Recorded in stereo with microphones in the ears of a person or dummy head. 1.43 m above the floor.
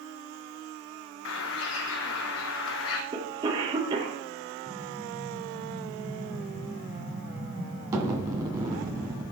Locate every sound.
1.2 s a bird: 70° left (ahead or behind), 1.0 m
3.1 s a cough: 20° right (ahead or behind), 1.5 m
4.7 s an explosion: 15° right (ahead or behind), 2 m